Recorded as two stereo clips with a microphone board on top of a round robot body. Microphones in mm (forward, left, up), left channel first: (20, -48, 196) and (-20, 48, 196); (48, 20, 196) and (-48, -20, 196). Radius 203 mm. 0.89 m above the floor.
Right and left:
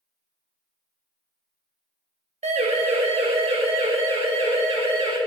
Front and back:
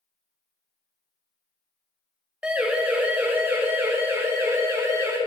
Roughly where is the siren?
Behind left.